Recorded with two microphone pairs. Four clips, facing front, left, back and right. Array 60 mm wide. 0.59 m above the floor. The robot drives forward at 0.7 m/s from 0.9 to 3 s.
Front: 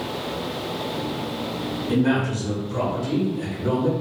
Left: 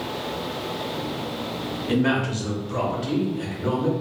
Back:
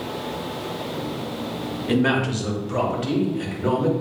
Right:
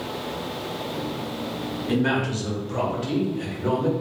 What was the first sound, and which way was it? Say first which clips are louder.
A man speaking: left 1 dB, back 1 dB; 160° left.